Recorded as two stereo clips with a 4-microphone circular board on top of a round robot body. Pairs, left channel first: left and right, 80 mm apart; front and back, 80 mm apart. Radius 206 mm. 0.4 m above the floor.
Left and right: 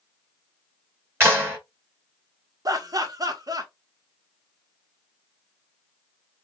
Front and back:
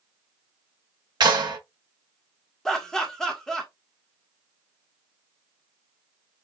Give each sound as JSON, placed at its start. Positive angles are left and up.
{"t": 1.2, "sound": "a clap", "azimuth_deg": -150, "distance_m": 3.0}
{"t": 2.6, "sound": "laughter", "azimuth_deg": -80, "distance_m": 1.6}